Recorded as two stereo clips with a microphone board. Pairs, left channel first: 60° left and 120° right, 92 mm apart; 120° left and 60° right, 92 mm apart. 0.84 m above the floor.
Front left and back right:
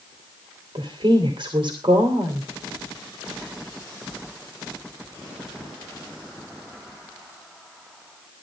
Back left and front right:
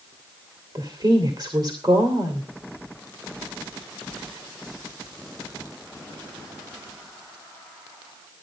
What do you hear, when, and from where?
0.8 s a woman speaking: 95° right, 2.5 m